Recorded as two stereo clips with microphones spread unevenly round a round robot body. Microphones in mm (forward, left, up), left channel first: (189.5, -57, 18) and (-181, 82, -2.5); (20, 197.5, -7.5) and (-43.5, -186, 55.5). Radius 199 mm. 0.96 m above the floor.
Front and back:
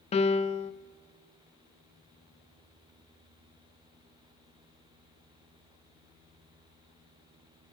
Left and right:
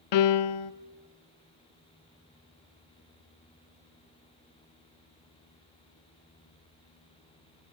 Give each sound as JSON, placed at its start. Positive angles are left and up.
{"t": 0.1, "sound": "a piano", "azimuth_deg": 55, "distance_m": 0.6}